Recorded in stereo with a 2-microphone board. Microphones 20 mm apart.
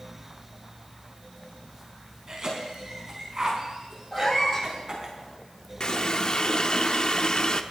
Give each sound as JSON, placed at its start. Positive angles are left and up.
{"t": 2.3, "sound": "a cough", "side_deg": -35, "distance_m": 4.5}
{"t": 4.1, "sound": "a cat meowing", "side_deg": 15, "distance_m": 7.5}
{"t": 5.8, "sound": "a running tap", "side_deg": 40, "distance_m": 0.6}